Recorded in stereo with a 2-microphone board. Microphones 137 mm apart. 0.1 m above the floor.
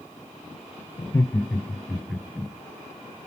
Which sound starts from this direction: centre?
Laughter, at 1.0 s.